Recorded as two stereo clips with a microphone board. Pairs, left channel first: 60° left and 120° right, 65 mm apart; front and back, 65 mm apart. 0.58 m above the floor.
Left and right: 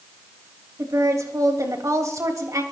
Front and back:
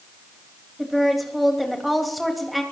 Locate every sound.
0.8 s a woman speaking: 90° right, 3 m